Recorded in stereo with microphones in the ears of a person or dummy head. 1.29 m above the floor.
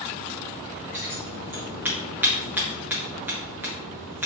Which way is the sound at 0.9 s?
10° right (ahead or behind).